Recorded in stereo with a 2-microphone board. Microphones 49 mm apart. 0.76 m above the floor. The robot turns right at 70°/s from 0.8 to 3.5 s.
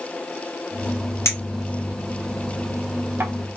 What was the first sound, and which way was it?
A clink, 70° left (ahead or behind).